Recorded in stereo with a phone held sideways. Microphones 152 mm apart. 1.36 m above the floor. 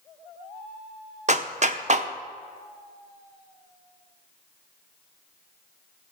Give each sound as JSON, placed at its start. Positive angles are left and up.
{"t": 1.3, "sound": "a clap", "side_deg": -50, "distance_m": 0.7}